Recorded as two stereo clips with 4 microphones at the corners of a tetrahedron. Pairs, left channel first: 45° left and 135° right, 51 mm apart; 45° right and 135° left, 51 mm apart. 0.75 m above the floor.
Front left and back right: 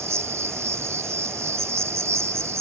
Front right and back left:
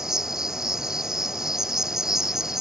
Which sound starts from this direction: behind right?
An insect, at 0.0 s.